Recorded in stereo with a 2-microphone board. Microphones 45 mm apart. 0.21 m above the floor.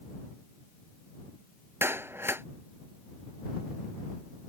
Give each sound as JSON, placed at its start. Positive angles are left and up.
{"t": 1.8, "sound": "a clap", "side_deg": -65}